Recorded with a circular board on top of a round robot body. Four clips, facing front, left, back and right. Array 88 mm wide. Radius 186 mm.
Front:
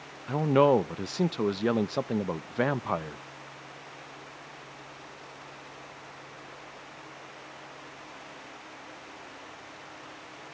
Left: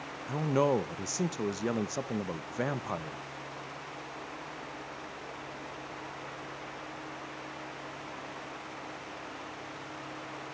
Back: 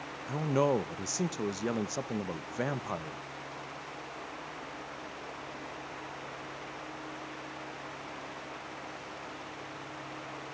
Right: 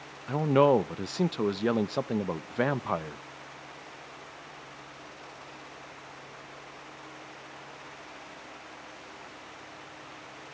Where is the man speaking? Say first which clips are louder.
Right 6 dB, front 7 dB; 40° right, 0.8 m.